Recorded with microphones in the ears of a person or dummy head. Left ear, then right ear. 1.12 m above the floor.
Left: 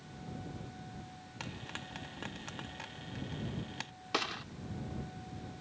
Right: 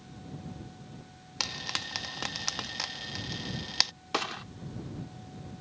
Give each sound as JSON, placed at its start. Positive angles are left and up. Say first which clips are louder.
{"t": 1.4, "sound": "frying", "louder": "right 12 dB", "side_deg": -55}
{"t": 4.1, "sound": "a gunshot", "louder": "right 3 dB", "side_deg": -10}